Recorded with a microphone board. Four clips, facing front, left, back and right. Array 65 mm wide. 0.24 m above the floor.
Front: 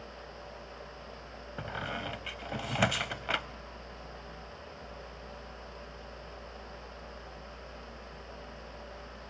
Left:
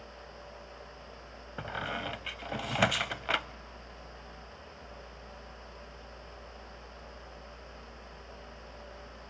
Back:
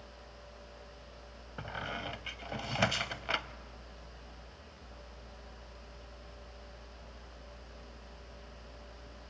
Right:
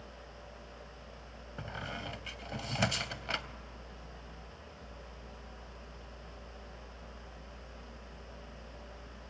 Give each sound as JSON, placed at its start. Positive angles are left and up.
{"t": 1.6, "sound": "a squeak", "azimuth_deg": 75, "distance_m": 0.6}